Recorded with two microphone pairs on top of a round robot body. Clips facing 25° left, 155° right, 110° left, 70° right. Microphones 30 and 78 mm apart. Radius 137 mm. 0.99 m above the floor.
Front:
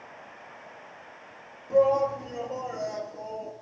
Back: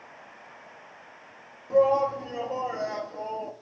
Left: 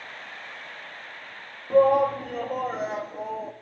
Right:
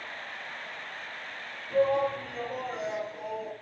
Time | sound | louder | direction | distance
1.7 | a shout | even, left 7 dB | 130° left | 2.5 m